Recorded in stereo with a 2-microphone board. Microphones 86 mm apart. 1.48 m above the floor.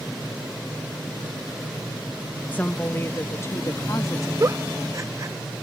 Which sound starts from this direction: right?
A giggle, at 4.4 s.